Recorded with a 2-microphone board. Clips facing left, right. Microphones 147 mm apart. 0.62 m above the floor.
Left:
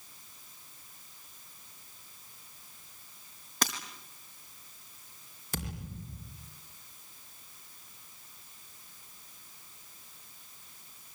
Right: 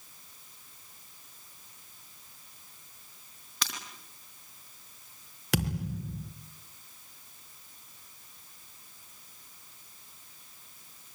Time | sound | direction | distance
3.6 | breaking glass | 45° left (ahead or behind) | 4.5 m
5.5 | a thud | 85° right | 4 m